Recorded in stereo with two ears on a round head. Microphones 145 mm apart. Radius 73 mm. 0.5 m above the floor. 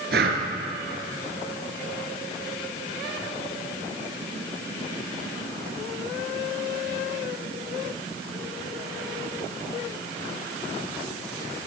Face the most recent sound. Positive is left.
turn(degrees=-70)  # may be behind; listen again after turning